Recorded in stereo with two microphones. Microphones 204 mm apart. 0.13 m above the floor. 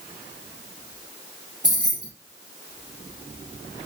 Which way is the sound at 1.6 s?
20° right (ahead or behind).